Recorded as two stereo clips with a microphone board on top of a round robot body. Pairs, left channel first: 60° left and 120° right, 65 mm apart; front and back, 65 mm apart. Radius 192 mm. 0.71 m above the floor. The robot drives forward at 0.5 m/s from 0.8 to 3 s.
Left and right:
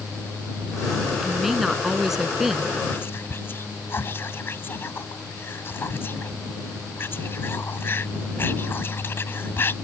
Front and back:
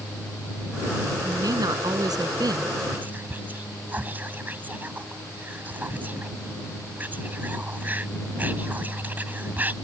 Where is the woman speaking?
155° left.